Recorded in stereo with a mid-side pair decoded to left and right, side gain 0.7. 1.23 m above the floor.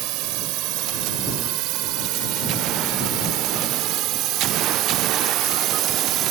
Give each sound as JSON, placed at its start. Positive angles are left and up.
{"t": 0.0, "sound": "a drone", "azimuth_deg": -65}